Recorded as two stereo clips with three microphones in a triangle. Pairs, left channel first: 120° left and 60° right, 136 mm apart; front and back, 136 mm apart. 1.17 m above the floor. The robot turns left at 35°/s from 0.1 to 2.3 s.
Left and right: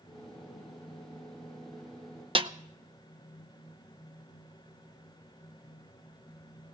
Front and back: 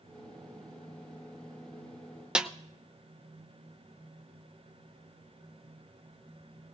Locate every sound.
2.4 s a snare drum: 100° right, 0.6 m